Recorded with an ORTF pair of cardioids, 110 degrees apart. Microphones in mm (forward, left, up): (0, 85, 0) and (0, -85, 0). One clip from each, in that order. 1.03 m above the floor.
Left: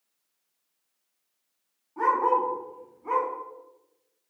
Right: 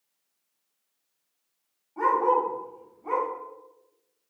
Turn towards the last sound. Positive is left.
turn(degrees=5)